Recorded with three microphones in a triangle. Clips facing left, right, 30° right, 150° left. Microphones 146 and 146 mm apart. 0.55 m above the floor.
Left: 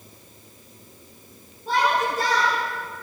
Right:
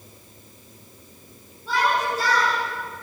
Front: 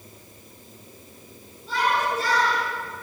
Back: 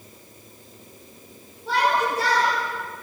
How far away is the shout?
About 7.5 m.